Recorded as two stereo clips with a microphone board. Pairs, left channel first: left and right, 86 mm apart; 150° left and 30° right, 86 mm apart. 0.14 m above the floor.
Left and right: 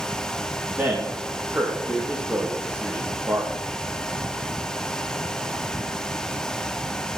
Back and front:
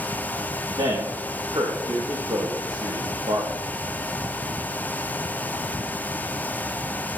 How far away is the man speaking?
About 5 m.